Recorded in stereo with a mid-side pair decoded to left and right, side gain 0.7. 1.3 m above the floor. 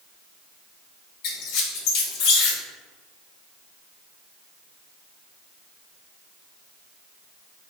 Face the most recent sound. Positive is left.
turn(degrees=65)